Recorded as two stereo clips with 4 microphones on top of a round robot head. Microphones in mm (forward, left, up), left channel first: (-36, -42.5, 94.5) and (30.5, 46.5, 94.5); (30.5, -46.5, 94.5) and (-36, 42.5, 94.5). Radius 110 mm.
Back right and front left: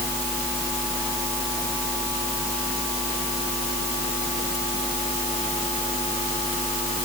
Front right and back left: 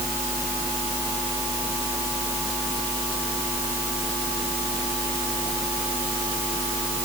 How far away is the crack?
No crack in this recording.